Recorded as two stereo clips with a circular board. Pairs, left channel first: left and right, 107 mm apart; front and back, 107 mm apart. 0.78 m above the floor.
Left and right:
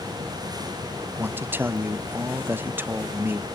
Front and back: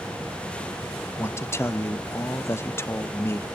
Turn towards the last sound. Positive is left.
turn(degrees=-40)